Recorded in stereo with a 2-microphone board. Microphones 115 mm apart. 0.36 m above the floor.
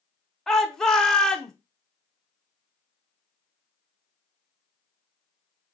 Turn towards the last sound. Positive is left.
turn(degrees=5)  # may be behind; listen again after turning